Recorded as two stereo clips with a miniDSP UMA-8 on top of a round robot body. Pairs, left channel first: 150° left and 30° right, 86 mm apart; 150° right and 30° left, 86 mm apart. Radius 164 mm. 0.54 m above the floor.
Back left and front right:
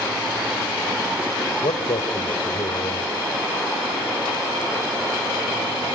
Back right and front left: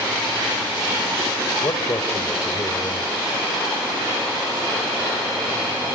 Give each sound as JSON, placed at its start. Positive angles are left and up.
{"t": 1.6, "sound": "a man speaking", "azimuth_deg": 155, "distance_m": 2.5}